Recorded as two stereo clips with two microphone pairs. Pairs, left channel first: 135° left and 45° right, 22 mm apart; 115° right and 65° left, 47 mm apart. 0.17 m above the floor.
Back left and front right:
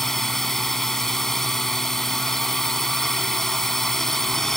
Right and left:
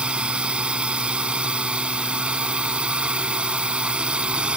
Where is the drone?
90° left.